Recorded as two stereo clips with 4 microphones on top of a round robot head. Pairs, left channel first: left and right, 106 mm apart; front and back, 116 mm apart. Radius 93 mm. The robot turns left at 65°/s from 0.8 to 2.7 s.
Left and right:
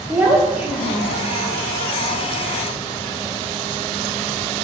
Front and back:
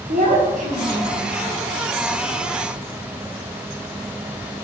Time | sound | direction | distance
0.1 | a child speaking | 170° right | 1.3 m